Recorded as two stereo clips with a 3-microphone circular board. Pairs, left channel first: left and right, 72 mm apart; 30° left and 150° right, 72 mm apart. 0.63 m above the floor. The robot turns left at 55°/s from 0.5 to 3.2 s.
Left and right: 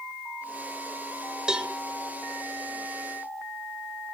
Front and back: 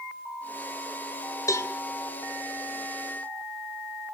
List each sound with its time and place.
1.5 s a cowbell: 10° right, 2.5 m; by 1.7 s 20° right, 2.5 m